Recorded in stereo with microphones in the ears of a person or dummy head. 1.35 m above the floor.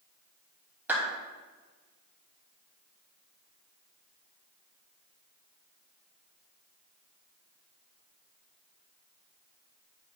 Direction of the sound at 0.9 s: 15° right (ahead or behind).